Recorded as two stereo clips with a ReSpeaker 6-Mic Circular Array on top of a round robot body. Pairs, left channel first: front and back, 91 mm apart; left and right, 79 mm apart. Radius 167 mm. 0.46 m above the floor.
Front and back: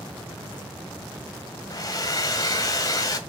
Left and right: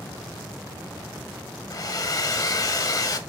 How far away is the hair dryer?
About 1.2 m.